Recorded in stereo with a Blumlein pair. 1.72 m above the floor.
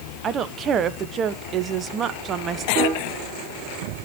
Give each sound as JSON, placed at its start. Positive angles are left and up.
{"t": 0.2, "sound": "a woman speaking", "azimuth_deg": -25, "distance_m": 1.0}
{"t": 2.8, "sound": "a piano", "azimuth_deg": -35, "distance_m": 0.9}